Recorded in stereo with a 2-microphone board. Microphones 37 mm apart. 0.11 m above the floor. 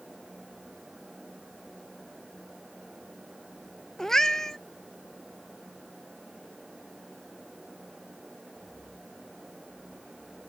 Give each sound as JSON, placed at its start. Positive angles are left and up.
{"t": 4.0, "sound": "a cat meowing", "side_deg": 15}